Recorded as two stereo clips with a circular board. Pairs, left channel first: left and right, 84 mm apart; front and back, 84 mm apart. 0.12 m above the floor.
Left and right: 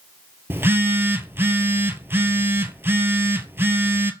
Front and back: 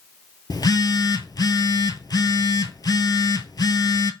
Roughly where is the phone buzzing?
Ahead right.